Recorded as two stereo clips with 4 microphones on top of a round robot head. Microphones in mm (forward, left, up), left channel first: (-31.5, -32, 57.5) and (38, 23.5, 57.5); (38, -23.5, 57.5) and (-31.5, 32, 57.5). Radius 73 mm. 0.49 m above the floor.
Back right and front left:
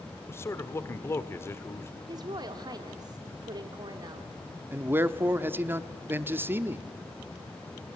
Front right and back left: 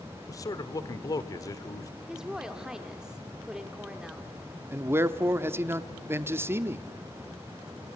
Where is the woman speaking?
60° left, 1.5 m.